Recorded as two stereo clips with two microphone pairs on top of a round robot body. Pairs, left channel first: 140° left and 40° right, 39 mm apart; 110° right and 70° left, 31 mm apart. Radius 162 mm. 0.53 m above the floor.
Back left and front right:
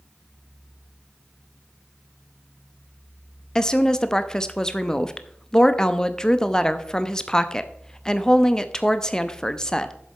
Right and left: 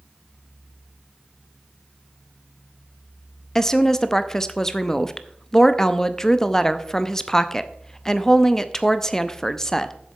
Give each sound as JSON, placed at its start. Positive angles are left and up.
{"t": 3.5, "sound": "a woman speaking", "azimuth_deg": -170, "distance_m": 0.9}